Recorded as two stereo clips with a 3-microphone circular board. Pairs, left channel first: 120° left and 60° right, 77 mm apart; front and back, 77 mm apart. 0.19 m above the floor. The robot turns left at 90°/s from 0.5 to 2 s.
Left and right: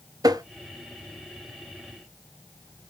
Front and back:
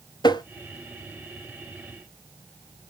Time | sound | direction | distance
0.2 | tapping | 25° right | 0.7 m